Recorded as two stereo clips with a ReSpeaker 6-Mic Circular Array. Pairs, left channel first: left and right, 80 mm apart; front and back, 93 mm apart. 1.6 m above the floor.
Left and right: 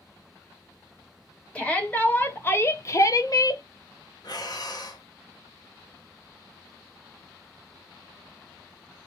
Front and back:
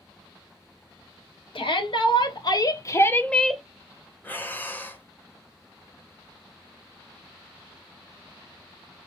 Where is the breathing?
65° left, 0.9 m.